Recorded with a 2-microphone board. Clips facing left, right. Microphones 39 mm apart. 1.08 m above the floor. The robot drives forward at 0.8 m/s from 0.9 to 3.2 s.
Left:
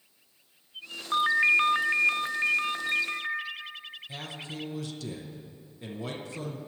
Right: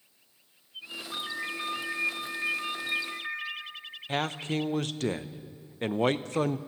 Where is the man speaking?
60° right (ahead or behind), 0.6 m.